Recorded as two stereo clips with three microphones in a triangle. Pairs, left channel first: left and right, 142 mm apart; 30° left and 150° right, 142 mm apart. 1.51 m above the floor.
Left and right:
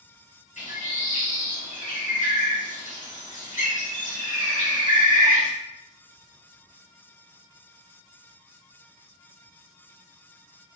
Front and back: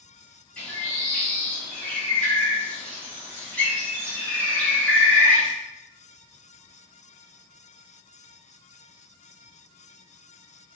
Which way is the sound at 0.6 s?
110° left.